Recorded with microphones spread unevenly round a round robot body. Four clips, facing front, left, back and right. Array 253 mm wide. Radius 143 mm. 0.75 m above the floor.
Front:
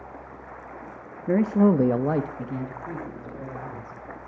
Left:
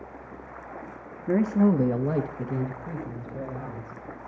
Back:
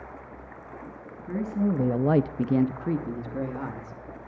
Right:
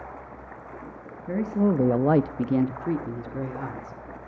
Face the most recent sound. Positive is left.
turn(degrees=-135)